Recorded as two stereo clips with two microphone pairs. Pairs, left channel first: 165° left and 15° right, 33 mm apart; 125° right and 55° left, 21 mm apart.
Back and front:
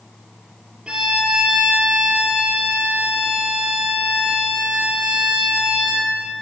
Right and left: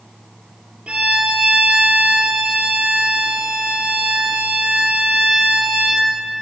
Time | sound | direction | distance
0.9 | a violin | 40° left | 2.5 m